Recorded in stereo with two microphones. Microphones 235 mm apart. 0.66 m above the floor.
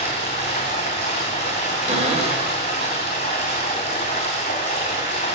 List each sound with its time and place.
0.0 s running water: 25° left (ahead or behind), 3 m
1.9 s a cupboard door: 30° right (ahead or behind), 1.5 m